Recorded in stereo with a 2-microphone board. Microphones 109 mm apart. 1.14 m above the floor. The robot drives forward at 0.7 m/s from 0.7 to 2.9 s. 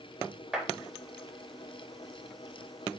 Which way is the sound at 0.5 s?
5° right (ahead or behind).